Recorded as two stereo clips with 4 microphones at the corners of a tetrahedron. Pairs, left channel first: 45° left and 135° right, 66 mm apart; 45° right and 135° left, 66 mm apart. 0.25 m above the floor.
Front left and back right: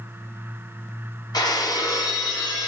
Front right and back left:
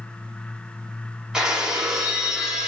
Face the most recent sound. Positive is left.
turn(degrees=55)